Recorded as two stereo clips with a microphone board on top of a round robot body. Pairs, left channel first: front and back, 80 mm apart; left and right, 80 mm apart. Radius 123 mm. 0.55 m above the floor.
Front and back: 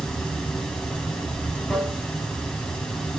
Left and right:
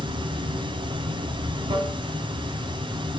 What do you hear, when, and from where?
0.0 s running water: 85° right, 3 m